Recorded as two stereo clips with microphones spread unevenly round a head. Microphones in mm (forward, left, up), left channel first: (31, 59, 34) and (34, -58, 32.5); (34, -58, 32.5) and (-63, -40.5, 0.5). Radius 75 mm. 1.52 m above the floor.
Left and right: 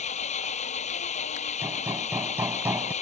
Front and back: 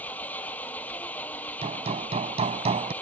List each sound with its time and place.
0.0 s an engine running: 65° left
1.6 s hammering: 165° right